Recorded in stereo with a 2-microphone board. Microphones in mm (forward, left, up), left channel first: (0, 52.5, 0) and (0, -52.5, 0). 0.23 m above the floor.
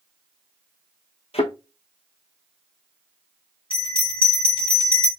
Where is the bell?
55° left (ahead or behind), 2.5 m.